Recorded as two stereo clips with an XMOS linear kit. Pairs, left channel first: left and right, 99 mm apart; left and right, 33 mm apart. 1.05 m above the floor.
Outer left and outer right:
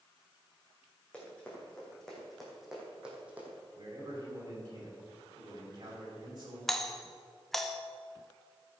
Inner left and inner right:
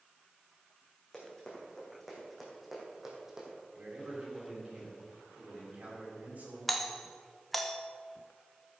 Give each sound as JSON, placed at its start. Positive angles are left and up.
{"t": 1.1, "sound": "running footsteps", "side_deg": 10, "distance_m": 4.0}
{"t": 3.7, "sound": "a man speaking", "side_deg": -40, "distance_m": 4.5}
{"t": 6.7, "sound": "a doorbell", "side_deg": 5, "distance_m": 0.7}